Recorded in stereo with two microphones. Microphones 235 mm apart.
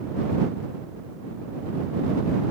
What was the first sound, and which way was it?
Only background noise.